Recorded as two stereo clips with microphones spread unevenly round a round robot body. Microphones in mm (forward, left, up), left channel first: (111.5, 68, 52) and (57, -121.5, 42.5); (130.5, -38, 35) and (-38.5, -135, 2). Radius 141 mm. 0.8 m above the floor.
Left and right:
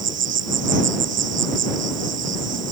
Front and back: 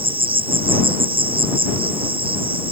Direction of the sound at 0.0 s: 85° right.